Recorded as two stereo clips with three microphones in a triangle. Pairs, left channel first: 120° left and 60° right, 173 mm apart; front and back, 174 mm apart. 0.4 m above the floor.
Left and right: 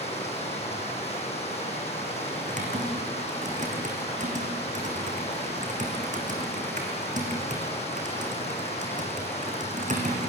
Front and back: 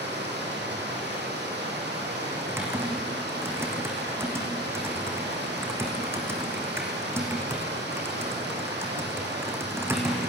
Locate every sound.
0.0 s running water: 170° left, 6 m
2.4 s typing on a keyboard: 105° right, 4 m